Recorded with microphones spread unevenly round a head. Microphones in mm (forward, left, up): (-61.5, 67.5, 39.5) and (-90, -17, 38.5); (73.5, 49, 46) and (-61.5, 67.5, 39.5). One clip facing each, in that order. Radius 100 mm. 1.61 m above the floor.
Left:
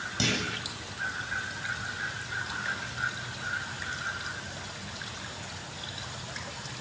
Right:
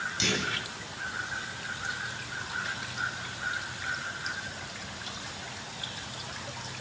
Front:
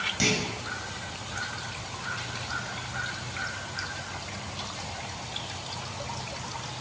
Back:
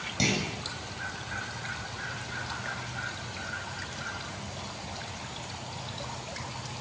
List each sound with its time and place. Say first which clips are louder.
0.2 s a clunk: left 2 dB, front 1 dB; 110° left, 8 m